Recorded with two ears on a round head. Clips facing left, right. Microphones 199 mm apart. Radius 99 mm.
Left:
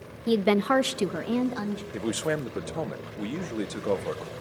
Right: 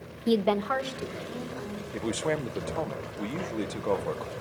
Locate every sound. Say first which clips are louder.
0.3 s a woman speaking: left 2 dB; 5° right (ahead or behind), 0.5 m; by 1.8 s 90° left, 1.9 m
1.9 s a man speaking: even; 10° left (ahead or behind), 0.8 m